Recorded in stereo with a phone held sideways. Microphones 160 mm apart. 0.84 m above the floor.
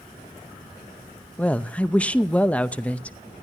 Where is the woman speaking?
10° left (ahead or behind), 0.7 m.